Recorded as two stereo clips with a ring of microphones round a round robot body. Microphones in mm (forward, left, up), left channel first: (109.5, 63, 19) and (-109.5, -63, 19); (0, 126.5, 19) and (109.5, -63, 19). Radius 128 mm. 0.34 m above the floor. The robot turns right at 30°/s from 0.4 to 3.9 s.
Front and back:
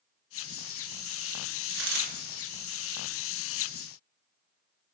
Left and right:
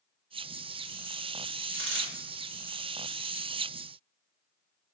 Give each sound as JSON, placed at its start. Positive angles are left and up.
{"t": 1.7, "sound": "a dropped coin", "azimuth_deg": -105, "distance_m": 1.7}